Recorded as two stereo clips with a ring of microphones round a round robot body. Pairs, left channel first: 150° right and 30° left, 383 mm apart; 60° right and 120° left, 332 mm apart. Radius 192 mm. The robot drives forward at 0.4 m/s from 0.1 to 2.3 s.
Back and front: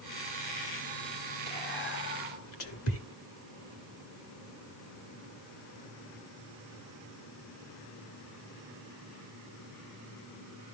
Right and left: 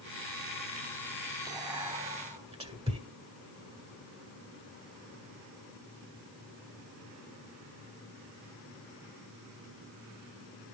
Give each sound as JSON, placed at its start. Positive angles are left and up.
{"t": 1.5, "sound": "whispering", "azimuth_deg": -165, "distance_m": 1.2}